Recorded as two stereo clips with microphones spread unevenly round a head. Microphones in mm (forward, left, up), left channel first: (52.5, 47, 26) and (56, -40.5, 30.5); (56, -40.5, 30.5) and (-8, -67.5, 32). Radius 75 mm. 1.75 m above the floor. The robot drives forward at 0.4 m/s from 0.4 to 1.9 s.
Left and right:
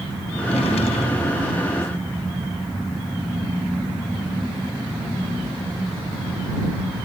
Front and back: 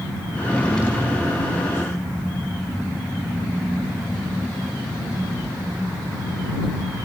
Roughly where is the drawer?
Left.